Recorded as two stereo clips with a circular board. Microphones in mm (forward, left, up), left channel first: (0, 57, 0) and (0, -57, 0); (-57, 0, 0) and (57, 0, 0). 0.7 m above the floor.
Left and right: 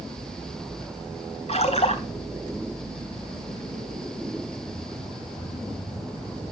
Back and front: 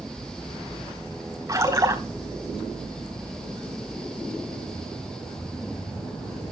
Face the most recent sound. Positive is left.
turn(degrees=65)